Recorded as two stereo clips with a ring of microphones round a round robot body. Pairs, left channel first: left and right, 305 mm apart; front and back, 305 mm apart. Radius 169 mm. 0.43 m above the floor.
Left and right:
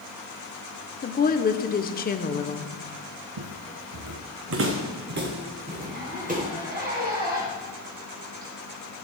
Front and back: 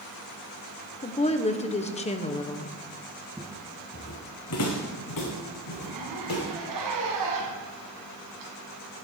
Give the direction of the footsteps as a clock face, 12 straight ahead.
3 o'clock.